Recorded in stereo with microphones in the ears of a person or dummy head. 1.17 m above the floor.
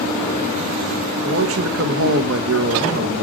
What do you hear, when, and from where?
1.2 s a man speaking: 60° right (ahead or behind), 1.2 m